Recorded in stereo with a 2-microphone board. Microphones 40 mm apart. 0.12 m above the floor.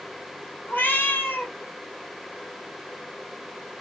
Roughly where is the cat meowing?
Left.